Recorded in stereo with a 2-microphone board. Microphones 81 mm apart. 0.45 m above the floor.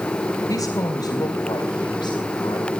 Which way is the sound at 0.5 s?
45° left (ahead or behind).